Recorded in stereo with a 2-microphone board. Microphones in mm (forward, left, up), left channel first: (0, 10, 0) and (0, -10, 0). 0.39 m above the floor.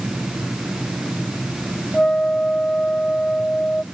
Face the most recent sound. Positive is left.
turn(degrees=50)  # may be behind; listen again after turning